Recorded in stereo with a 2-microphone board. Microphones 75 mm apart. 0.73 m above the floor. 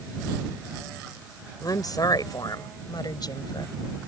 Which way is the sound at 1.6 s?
60° left (ahead or behind).